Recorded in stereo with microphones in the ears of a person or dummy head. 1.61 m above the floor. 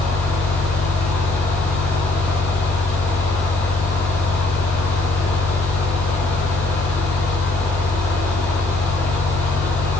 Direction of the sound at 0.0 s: 10° left (ahead or behind).